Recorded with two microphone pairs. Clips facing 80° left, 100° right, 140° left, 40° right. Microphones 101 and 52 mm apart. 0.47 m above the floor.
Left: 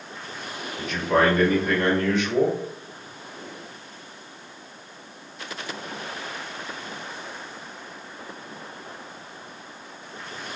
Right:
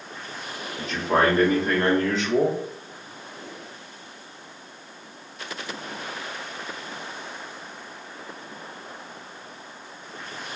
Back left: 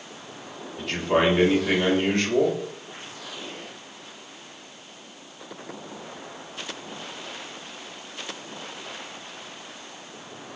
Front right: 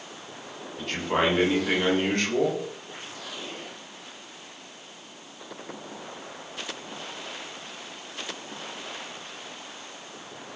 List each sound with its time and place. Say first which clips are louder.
0.8 s a man speaking: left 1 dB, back left 3 dB; 130° right, 1.0 m